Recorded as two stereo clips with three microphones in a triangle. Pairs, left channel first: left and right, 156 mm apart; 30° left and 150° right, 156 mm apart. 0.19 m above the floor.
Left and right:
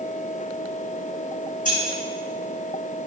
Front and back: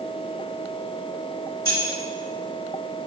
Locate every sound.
1.6 s keys jangling: 95° left, 1.7 m